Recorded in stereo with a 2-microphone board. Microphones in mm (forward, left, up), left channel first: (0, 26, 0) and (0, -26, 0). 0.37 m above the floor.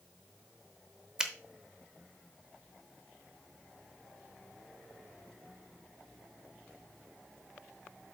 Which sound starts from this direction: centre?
A finger snap, at 1.2 s.